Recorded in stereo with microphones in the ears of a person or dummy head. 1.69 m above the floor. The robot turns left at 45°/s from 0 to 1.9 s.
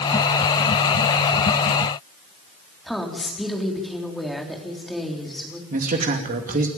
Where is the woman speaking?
5° left (ahead or behind), 3.5 m.